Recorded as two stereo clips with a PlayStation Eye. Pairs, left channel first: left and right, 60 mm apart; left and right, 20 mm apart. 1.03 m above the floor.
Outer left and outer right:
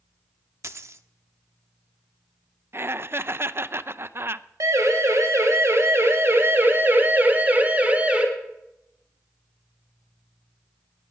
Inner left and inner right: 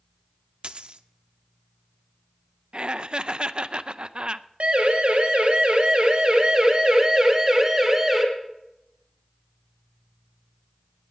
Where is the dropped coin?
50° right (ahead or behind), 0.7 m.